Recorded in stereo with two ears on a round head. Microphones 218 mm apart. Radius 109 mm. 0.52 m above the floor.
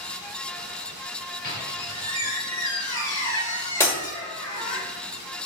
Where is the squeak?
20° left (ahead or behind), 1.0 m.